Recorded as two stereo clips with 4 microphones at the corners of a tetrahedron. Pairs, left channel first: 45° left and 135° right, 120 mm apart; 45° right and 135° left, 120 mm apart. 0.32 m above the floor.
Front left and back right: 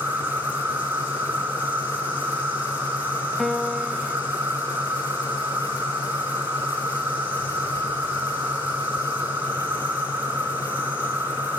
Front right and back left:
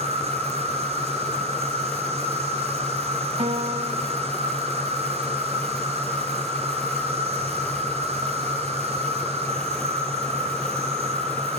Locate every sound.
0.0 s an insect: 150° left, 3.5 m
3.4 s a piano: 135° left, 0.8 m